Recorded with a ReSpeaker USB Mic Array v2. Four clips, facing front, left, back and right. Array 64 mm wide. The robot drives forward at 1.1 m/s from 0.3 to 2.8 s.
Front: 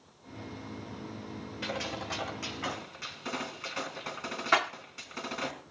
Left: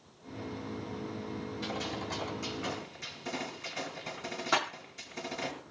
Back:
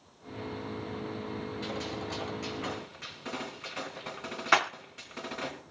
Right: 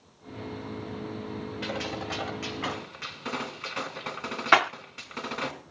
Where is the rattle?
105° right, 0.5 m.